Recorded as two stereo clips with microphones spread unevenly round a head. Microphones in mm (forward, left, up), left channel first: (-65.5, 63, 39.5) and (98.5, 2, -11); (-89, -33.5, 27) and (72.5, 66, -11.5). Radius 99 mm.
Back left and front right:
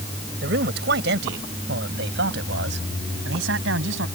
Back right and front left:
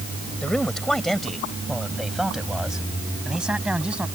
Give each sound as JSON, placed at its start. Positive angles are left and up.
{"t": 0.4, "sound": "a man speaking", "azimuth_deg": -65}